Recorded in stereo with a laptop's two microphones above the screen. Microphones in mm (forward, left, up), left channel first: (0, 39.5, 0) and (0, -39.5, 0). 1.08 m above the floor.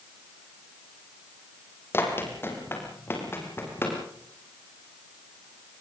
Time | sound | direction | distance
1.9 | running footsteps | 30° left (ahead or behind) | 3.5 m